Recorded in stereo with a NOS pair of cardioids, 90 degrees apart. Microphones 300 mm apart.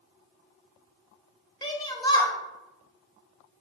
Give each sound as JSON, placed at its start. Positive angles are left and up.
{"t": 1.6, "sound": "a shout", "azimuth_deg": 15, "distance_m": 1.3}